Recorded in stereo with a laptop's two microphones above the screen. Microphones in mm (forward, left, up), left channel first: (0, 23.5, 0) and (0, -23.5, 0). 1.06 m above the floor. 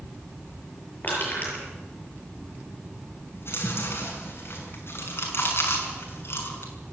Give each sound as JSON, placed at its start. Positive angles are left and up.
{"t": 1.0, "sound": "crushing", "side_deg": 40, "distance_m": 7.5}
{"t": 3.3, "sound": "chewing", "side_deg": 55, "distance_m": 6.5}